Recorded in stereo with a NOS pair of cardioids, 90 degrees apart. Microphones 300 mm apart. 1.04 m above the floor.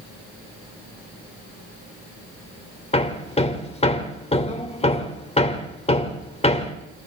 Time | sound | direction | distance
2.9 | hammering | 20° left | 3.5 m